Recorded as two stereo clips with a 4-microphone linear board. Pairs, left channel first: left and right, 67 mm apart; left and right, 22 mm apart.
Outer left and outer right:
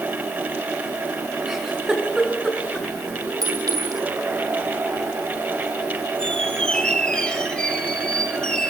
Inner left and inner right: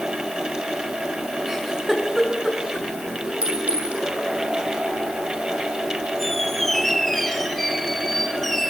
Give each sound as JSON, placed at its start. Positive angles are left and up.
{"t": 1.5, "sound": "a giggle", "side_deg": -5, "distance_m": 6.0}
{"t": 3.4, "sound": "a clink", "side_deg": -75, "distance_m": 8.0}
{"t": 6.2, "sound": "a squeak", "side_deg": 15, "distance_m": 2.5}